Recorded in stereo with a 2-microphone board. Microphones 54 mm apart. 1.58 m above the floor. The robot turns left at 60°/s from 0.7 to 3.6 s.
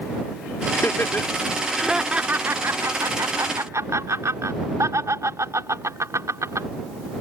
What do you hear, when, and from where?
0.7 s laughter: 60° left (ahead or behind); by 6.7 s 70° right (ahead or behind)